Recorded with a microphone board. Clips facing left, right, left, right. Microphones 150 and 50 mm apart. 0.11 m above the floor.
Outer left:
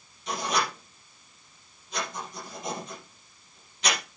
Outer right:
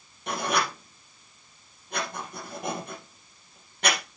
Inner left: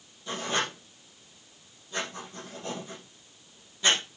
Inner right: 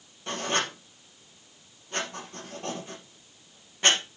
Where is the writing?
60° right (ahead or behind), 3.5 m.